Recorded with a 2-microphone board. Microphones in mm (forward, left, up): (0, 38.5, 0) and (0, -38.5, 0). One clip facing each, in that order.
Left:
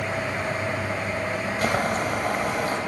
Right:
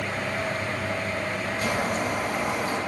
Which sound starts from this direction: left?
Boiling, at 1.6 s.